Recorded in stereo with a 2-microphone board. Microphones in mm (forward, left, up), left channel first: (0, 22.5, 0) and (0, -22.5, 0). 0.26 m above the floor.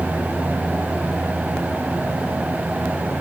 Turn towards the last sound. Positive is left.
No sound to turn to.